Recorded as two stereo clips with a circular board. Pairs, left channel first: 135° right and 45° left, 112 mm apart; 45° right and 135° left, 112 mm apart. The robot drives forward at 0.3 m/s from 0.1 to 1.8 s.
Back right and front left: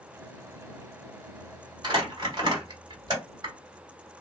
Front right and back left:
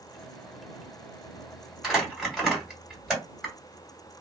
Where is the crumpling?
45° left, 1.6 m.